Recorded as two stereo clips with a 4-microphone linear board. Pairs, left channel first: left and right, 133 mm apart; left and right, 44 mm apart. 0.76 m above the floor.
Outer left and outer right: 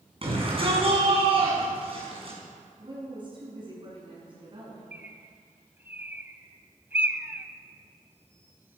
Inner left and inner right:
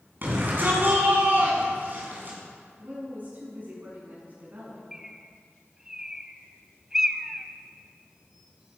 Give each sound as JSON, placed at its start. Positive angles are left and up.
{"t": 0.2, "sound": "a shout", "side_deg": -40, "distance_m": 6.5}
{"t": 2.8, "sound": "a woman speaking", "side_deg": -35, "distance_m": 8.0}
{"t": 4.9, "sound": "a bird", "side_deg": -15, "distance_m": 0.9}